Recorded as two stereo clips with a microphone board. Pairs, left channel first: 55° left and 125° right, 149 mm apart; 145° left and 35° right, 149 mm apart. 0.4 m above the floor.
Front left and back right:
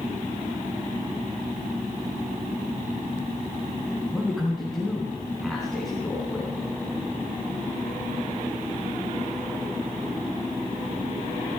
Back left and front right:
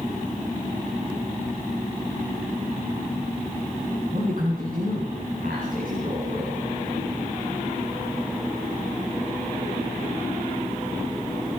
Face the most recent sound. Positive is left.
turn(degrees=-35)